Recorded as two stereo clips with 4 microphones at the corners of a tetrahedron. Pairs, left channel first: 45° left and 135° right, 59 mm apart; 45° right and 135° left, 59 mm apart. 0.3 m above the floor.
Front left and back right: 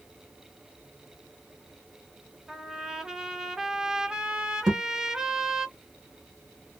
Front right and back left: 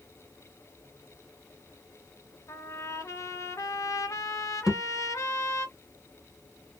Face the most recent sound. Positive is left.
turn(degrees=-145)